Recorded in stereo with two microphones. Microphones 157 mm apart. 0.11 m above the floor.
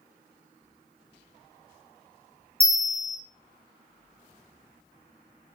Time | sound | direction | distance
2.6 | a bell | 5° left (ahead or behind) | 1.5 m